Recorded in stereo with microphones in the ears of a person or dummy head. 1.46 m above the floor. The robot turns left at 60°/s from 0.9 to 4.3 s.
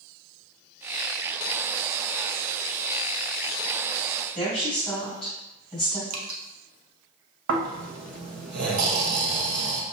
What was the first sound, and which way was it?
A woman speaking, 5° left (ahead or behind).